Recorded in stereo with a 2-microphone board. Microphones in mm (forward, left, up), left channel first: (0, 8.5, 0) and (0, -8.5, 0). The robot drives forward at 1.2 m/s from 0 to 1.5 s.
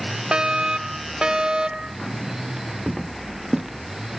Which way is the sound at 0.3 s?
65° right (ahead or behind).